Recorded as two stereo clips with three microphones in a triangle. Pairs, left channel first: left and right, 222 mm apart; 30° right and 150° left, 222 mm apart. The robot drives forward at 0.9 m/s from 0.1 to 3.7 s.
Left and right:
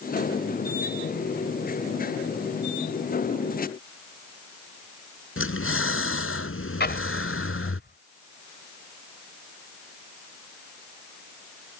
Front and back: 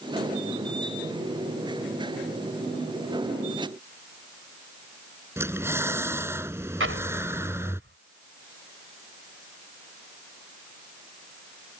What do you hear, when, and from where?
5.4 s breathing: 70° left
6.8 s an explosion: 130° left